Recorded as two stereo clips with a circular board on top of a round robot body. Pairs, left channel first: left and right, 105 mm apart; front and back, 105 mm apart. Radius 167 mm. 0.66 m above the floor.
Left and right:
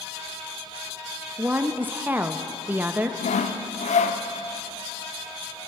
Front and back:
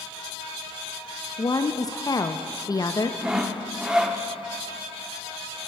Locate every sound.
1.4 s a woman speaking: 25° right, 0.7 m
3.2 s sawing: 95° left, 0.5 m